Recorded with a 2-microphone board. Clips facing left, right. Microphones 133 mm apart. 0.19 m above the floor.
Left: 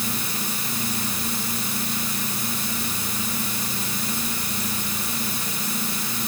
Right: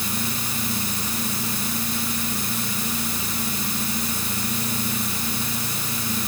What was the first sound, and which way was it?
Only background noise.